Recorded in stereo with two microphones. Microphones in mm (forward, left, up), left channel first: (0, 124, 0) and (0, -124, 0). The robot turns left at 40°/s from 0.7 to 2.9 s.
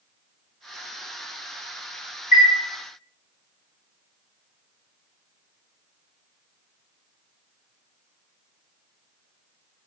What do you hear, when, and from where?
2.3 s a chime: 30° left (ahead or behind), 1.9 m; by 2.5 s 35° left (ahead or behind), 1.9 m